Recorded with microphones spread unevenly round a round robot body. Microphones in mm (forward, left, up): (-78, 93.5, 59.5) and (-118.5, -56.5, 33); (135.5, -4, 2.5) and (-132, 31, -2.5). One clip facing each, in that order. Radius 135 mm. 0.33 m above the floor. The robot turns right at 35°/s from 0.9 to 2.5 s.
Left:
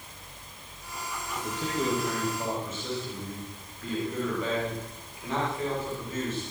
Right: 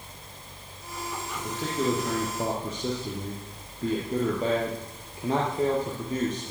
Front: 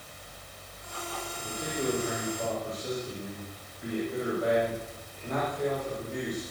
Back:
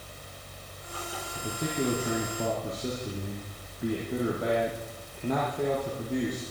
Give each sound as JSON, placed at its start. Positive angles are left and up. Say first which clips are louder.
{"t": 1.4, "sound": "a man speaking", "louder": "even, back 4 dB", "azimuth_deg": 160, "distance_m": 8.5}